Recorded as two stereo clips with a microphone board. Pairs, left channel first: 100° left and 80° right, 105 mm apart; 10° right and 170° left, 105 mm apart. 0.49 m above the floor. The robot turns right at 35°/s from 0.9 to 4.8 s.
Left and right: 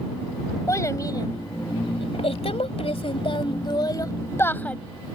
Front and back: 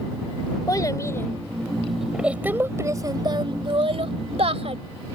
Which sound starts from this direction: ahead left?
A child speaking, at 0.7 s.